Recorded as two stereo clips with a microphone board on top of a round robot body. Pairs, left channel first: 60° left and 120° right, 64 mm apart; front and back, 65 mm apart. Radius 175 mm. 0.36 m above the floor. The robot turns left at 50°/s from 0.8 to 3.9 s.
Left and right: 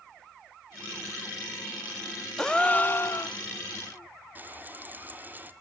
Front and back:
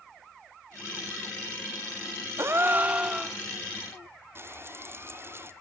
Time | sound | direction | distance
2.4 | a gasp | 145° left | 0.8 m
4.3 | frying | 165° right | 1.8 m